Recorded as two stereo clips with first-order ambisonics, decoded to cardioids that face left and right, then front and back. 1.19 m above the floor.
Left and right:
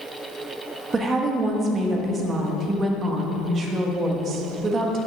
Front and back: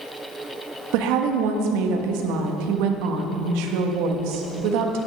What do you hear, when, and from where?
0.9 s a woman speaking: 165° right, 1.3 m